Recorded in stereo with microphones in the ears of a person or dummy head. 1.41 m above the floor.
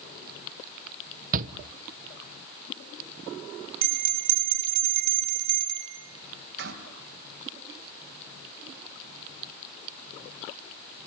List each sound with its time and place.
1.3 s a shout: 50° right (ahead or behind), 1.3 m
3.8 s a bell: 60° right (ahead or behind), 3.5 m